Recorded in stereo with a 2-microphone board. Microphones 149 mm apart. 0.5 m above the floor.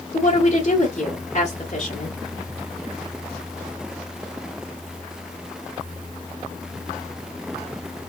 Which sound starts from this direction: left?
A woman speaking, at 0.1 s.